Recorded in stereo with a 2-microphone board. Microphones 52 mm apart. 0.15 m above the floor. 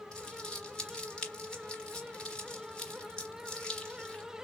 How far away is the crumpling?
About 2.5 m.